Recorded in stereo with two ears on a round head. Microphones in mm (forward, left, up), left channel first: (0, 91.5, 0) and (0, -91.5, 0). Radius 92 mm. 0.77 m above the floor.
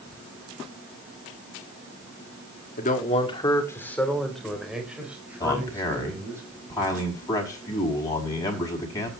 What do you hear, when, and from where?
2.8 s a man speaking: 45° left (ahead or behind), 1.7 m; by 6.4 s 15° right (ahead or behind), 5.5 m
5.4 s a man speaking: 15° left (ahead or behind), 5 m